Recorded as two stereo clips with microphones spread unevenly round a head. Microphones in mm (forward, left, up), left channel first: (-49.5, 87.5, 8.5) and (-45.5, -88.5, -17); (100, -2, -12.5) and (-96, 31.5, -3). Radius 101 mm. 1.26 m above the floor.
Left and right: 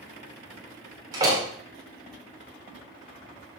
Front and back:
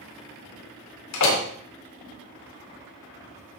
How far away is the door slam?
About 4 m.